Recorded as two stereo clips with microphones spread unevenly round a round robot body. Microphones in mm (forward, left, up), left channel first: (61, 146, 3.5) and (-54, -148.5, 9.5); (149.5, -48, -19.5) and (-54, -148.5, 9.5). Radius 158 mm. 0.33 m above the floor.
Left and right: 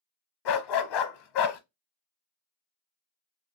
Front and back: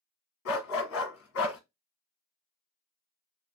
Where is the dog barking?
60° left, 0.8 m.